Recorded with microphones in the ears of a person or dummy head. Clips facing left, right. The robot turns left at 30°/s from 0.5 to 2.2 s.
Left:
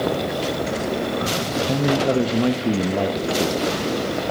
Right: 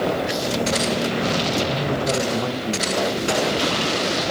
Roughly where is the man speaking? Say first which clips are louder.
Left 4 dB; left.